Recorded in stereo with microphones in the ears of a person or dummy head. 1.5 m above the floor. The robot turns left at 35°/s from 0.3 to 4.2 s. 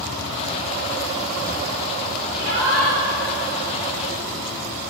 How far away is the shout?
About 5.5 m.